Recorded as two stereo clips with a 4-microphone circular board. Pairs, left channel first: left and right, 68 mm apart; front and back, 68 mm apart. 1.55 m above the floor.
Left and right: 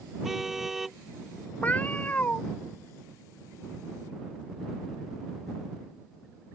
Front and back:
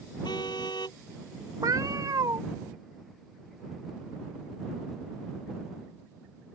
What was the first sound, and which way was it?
A car horn, 5° right.